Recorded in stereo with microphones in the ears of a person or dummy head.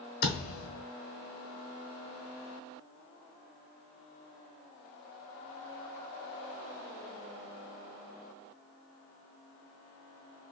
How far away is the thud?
About 1.4 m.